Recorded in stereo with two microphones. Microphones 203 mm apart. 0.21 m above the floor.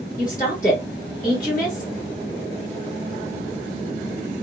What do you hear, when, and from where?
0.2 s a woman speaking: 45° left (ahead or behind), 2 m